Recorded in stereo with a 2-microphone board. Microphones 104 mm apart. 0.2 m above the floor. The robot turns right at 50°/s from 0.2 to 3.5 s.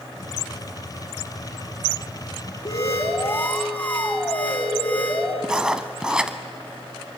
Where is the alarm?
110° left, 2.5 m; by 5.3 s 155° left, 2.5 m.